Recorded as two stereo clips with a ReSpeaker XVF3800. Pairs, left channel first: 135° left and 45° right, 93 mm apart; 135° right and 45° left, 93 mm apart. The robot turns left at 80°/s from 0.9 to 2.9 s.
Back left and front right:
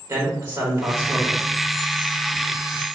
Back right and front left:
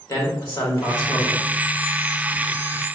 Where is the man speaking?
80° right, 1.8 m; by 1.5 s 125° right, 1.8 m.